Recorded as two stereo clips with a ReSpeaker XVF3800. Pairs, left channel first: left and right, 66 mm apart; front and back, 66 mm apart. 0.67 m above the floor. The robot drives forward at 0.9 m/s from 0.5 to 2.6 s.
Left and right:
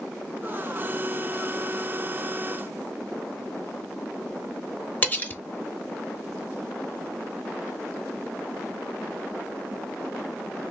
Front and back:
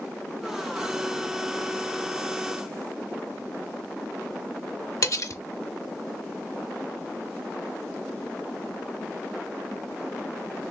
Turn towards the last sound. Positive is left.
turn(degrees=30)